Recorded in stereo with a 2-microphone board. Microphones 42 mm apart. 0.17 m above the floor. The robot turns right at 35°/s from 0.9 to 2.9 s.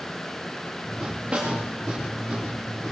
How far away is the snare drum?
About 9 m.